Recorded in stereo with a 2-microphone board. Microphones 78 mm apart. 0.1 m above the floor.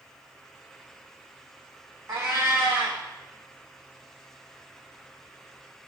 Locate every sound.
2.1 s a cat meowing: 35° right (ahead or behind), 0.7 m